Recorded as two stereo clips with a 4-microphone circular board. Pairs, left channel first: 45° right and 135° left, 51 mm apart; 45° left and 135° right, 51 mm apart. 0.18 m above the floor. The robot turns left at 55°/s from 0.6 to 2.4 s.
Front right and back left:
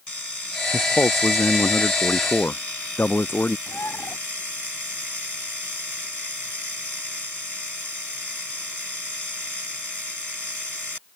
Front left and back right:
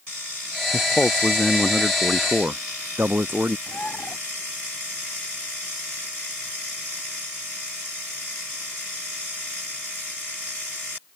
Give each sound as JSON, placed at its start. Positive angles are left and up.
{"t": 0.7, "sound": "a man speaking", "azimuth_deg": 5}
{"t": 3.7, "sound": "a bird", "azimuth_deg": -20}